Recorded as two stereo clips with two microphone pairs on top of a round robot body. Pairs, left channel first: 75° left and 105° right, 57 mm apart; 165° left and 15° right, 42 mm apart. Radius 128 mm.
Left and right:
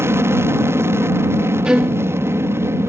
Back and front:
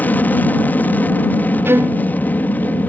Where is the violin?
25° right.